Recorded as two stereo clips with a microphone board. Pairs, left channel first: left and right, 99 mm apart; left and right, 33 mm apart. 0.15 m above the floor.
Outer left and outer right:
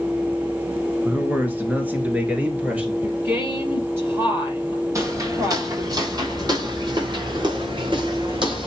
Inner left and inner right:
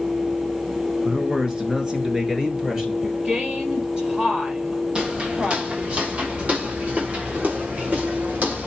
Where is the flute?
I don't hear a flute.